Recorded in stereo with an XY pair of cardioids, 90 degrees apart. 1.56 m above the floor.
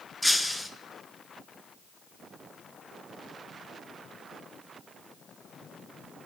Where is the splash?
I don't hear a splash.